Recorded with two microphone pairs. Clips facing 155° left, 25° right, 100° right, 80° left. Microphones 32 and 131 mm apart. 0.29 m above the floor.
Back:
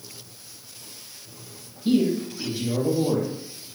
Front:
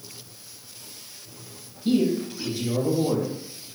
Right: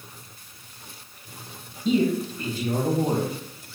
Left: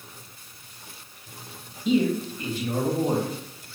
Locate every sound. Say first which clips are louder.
1.9 s a man speaking: back 1 dB, even; 135° right, 2 m